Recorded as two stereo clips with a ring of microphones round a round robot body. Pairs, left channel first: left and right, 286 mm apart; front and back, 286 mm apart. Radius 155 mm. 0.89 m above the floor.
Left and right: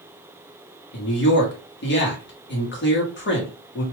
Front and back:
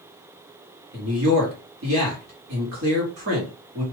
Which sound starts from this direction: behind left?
A man speaking, at 0.9 s.